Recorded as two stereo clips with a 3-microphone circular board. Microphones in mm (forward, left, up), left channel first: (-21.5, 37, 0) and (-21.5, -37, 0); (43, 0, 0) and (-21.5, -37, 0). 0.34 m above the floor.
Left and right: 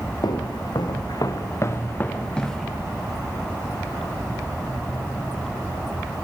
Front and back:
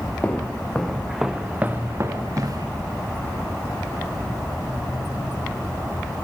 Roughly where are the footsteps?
Left.